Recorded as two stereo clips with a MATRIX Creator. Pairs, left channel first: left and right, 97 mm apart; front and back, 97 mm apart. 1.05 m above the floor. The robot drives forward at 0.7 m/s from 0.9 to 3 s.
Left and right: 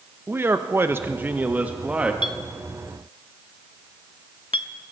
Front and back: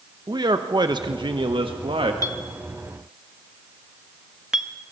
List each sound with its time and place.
0.3 s a man speaking: 150° right, 1.0 m; by 2.1 s 165° right, 1.7 m
2.2 s a clink: 55° left, 0.8 m; by 4.7 s 100° left, 0.7 m